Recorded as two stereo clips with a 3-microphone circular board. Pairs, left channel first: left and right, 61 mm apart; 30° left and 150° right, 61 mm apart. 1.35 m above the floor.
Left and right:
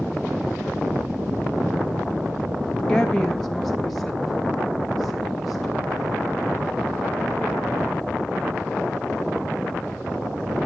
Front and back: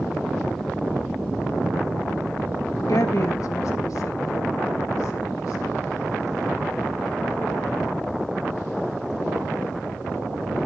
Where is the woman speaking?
15° left, 0.6 m; by 6.1 s straight ahead, 2.5 m.